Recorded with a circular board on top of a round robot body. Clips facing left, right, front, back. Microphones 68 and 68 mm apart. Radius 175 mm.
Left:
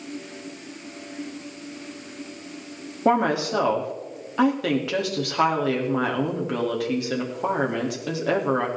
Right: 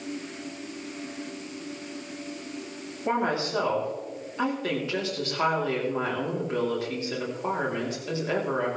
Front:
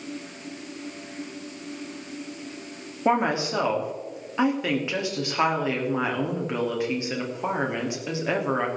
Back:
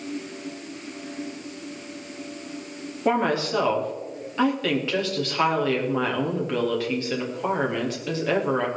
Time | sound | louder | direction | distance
3.0 | a woman speaking | left 6 dB, even | 75° left | 3 m